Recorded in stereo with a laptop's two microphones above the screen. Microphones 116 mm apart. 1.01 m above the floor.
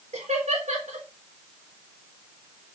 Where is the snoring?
I don't hear snoring.